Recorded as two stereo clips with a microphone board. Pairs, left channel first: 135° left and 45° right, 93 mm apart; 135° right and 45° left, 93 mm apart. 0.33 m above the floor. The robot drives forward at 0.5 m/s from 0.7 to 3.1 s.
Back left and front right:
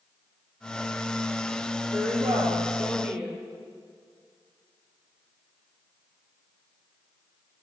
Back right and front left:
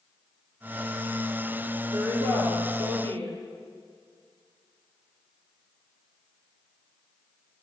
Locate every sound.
1.9 s a woman speaking: 35° left, 8.5 m